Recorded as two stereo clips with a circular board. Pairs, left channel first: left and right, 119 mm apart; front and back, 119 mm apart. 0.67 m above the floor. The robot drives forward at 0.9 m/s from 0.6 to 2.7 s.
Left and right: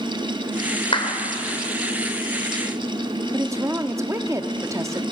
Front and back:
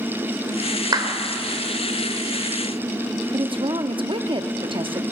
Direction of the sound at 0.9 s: 125° left.